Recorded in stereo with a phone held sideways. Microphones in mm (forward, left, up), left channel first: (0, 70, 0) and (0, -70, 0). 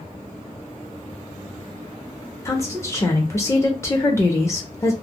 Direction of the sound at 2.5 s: 20° left (ahead or behind).